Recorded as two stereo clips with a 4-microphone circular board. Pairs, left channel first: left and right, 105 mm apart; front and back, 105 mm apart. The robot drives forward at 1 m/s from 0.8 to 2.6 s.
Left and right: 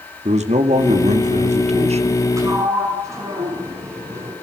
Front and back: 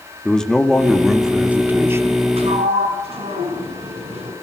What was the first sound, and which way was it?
A man speaking, 85° right.